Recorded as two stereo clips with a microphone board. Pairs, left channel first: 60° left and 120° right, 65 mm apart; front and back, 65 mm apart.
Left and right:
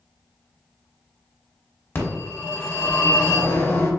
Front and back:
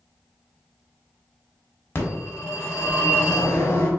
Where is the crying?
I don't hear crying.